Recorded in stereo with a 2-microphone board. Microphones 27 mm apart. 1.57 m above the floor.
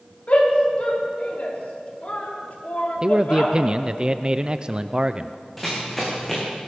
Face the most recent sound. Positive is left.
turn(degrees=10)  # may be behind; listen again after turning